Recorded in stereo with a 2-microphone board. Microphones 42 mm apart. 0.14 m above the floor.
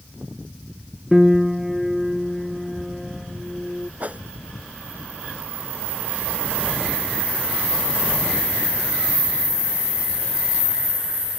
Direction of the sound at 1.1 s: 10° right (ahead or behind).